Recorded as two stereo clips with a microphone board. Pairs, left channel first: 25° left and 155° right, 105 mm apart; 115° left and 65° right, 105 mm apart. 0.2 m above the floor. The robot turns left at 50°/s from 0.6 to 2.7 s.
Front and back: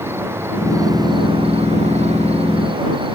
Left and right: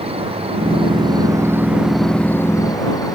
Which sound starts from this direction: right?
An insect, at 0.0 s.